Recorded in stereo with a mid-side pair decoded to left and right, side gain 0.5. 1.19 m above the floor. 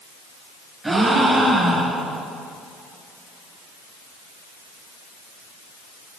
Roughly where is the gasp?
Ahead.